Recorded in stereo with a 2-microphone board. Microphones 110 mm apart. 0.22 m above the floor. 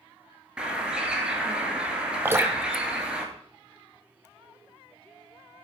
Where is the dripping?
20° right (ahead or behind), 0.6 m.